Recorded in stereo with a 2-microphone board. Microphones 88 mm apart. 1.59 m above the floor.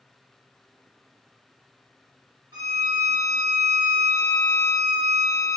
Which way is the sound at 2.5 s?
60° right (ahead or behind).